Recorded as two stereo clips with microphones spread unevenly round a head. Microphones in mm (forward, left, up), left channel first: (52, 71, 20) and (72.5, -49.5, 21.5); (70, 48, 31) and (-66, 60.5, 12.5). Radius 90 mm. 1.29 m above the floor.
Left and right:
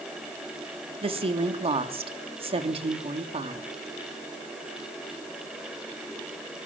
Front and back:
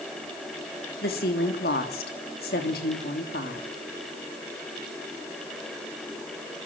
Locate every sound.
1.0 s a woman speaking: 40° right, 3.5 m